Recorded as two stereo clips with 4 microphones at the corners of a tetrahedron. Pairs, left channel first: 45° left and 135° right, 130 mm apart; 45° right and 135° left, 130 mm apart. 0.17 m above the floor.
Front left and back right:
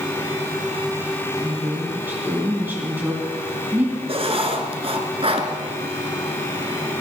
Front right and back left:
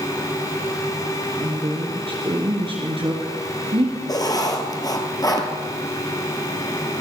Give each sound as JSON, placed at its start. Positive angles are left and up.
{"t": 1.4, "sound": "a woman speaking", "azimuth_deg": 155, "distance_m": 2.0}
{"t": 4.1, "sound": "writing", "azimuth_deg": -100, "distance_m": 1.7}